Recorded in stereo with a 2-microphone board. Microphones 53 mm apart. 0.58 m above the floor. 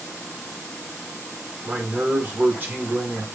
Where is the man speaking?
40° right (ahead or behind), 1.6 m.